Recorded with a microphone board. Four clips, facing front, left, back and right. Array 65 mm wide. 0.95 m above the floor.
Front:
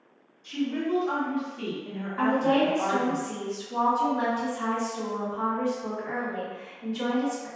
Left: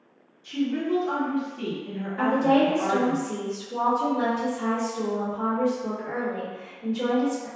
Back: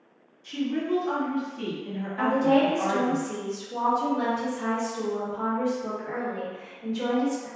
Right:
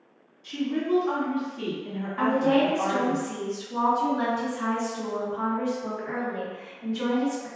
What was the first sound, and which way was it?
A woman speaking, 100° right.